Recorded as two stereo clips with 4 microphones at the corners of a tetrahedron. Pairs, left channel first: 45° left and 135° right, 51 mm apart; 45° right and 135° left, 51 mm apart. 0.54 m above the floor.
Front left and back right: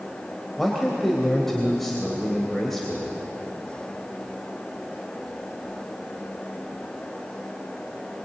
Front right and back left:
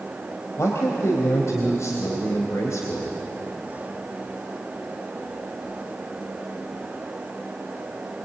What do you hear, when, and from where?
0.6 s a man speaking: 40° right, 3 m